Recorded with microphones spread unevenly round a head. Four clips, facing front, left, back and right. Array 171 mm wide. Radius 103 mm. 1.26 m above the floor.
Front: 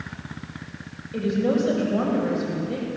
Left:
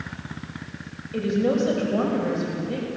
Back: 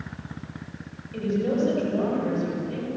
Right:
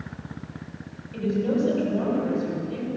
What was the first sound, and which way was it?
A woman speaking, 60° left.